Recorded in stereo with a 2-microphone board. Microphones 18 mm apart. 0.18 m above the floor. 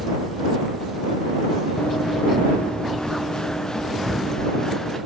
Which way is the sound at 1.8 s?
80° left.